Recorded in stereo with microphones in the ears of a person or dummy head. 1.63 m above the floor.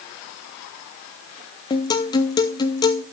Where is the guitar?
25° left (ahead or behind), 0.6 m.